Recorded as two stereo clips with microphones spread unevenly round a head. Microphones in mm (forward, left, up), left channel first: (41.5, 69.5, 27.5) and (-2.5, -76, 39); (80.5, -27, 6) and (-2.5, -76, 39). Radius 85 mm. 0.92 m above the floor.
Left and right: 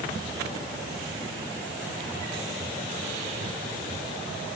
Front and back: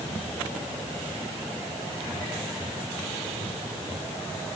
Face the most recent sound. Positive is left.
No sound to turn to.